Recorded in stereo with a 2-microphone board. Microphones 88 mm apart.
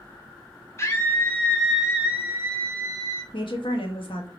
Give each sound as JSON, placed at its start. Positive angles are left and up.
{"t": 0.8, "sound": "a scream", "side_deg": 30, "distance_m": 1.3}
{"t": 3.3, "sound": "a woman speaking", "side_deg": 75, "distance_m": 1.1}